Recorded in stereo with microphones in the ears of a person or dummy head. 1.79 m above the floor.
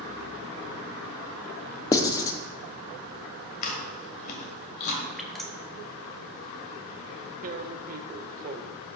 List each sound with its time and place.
1.9 s writing: 20° left (ahead or behind), 0.5 m
3.6 s chewing: 40° left (ahead or behind), 1.5 m
5.2 s dripping: 5° right (ahead or behind), 1.2 m
7.4 s tearing paper: 50° right (ahead or behind), 0.6 m